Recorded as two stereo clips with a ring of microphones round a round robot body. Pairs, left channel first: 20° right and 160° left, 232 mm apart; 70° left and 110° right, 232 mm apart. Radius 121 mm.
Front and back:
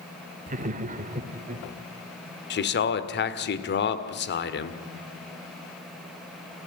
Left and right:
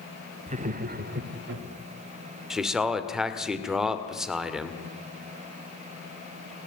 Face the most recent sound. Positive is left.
turn(degrees=-25)